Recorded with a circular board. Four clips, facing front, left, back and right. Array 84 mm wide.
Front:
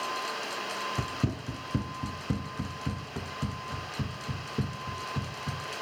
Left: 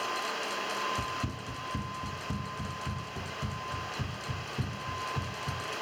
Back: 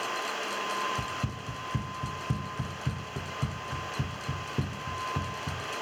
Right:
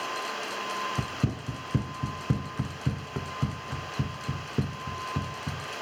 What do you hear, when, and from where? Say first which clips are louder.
1.0 s running footsteps: right 3 dB, front 2 dB; 45° right, 1.1 m; by 5.6 s 105° right, 3 m